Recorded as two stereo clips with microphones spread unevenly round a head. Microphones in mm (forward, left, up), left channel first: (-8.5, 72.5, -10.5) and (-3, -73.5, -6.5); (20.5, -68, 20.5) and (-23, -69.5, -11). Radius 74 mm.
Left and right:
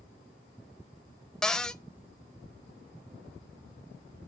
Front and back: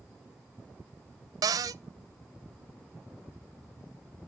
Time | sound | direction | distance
1.4 | a cupboard door | straight behind | 0.6 m